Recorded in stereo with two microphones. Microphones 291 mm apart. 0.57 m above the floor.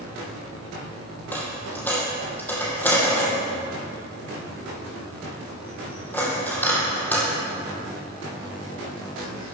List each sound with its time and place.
1.3 s a dropped coin: 5° left (ahead or behind), 2 m